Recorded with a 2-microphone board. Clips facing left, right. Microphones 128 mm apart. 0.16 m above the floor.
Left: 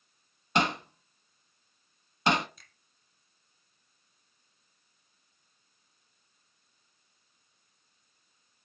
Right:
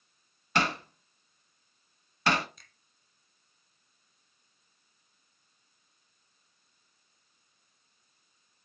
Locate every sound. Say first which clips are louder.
0.6 s hammering: left 2 dB; 20° left (ahead or behind), 0.7 m
2.6 s a finger snap: even; centre (ahead or behind), 1.0 m